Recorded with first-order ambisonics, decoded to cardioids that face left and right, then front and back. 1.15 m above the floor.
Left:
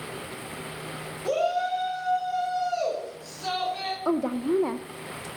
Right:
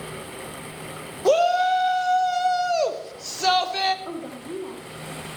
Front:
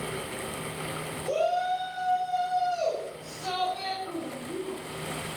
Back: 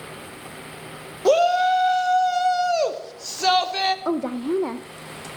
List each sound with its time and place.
1.2 s a shout: 140° right, 1.8 m
4.0 s a woman speaking: 145° left, 0.7 m